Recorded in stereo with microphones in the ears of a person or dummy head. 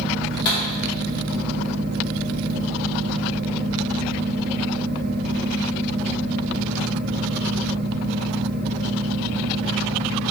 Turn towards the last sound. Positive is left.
turn(degrees=50)  # may be behind; listen again after turning